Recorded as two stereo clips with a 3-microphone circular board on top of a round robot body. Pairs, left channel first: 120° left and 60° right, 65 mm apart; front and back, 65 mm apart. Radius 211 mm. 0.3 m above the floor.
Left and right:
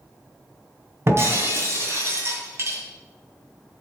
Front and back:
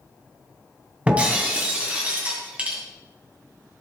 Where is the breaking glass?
110° right, 2.5 m.